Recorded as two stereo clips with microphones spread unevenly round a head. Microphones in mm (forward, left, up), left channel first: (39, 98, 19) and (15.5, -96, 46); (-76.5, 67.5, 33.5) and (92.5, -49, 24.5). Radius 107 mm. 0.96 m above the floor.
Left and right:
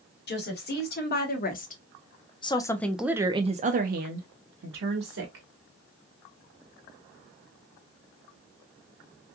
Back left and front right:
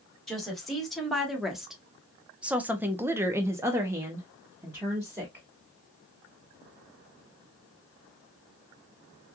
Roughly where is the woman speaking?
Ahead left.